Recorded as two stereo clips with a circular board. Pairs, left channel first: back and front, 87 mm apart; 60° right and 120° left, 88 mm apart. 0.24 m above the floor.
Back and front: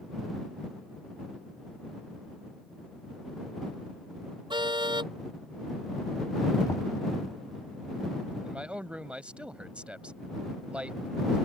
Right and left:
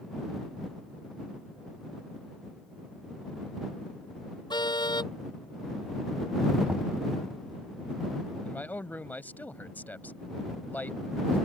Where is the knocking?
170° right.